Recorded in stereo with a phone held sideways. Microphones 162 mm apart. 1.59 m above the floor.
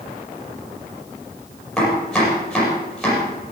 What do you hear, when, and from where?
1.8 s chopping: 5° left (ahead or behind), 7 m